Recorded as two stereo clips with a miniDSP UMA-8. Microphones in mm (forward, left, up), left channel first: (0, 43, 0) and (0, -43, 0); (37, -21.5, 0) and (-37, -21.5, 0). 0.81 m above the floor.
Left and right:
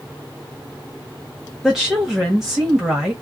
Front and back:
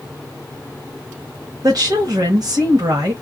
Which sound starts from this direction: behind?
A woman speaking, at 1.6 s.